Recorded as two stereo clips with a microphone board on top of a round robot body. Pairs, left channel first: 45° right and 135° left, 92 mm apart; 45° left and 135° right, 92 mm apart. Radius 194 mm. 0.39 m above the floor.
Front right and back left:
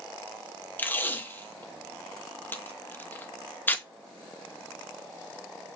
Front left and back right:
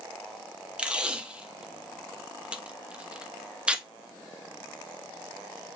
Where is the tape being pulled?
75° right, 0.9 m.